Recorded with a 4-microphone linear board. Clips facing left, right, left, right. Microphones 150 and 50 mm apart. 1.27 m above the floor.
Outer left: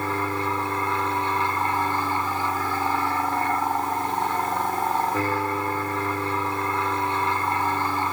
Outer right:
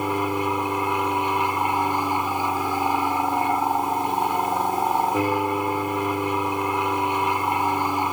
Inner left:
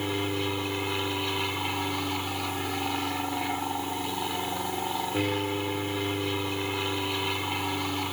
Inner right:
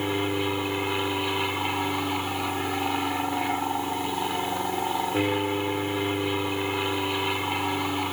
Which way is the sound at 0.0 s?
15° right (ahead or behind).